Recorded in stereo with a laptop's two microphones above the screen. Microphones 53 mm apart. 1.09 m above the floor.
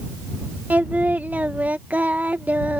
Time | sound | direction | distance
0.7 | singing | 30° right (ahead or behind) | ?